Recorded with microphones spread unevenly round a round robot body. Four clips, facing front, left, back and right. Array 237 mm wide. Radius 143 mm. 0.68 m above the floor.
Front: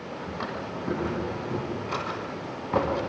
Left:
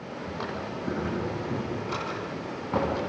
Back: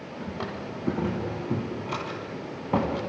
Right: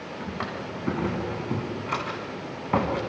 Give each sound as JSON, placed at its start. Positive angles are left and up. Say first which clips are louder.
{"t": 0.2, "sound": "a drawer", "louder": "right 1 dB, even", "azimuth_deg": -165, "distance_m": 2.5}